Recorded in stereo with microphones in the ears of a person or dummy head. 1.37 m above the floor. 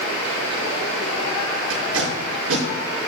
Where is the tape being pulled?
80° right, 5 m.